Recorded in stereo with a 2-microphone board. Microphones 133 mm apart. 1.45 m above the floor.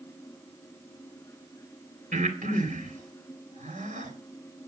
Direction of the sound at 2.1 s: 75° right (ahead or behind).